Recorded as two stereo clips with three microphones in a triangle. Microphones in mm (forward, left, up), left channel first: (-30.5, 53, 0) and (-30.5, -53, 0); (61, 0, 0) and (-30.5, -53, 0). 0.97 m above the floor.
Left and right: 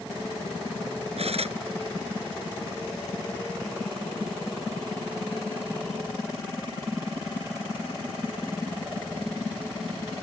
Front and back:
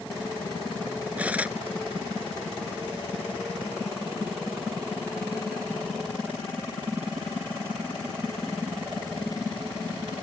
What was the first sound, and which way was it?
Cutlery clinking, 75° right.